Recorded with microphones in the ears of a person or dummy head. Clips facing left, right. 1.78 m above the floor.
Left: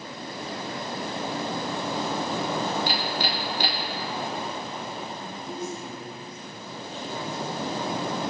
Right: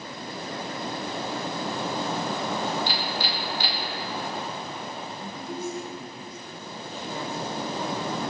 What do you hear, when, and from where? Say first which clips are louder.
2.9 s hammering: left 2 dB; 45° left (ahead or behind), 2.5 m
5.2 s a woman speaking: even; 5° right (ahead or behind), 3.5 m